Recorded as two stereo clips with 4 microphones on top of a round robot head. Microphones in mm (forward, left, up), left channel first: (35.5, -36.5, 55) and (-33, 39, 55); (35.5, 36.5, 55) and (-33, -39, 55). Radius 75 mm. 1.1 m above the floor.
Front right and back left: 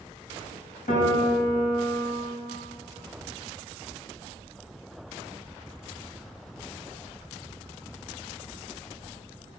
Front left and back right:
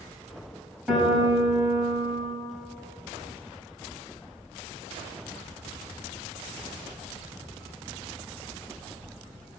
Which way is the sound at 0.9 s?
45° right.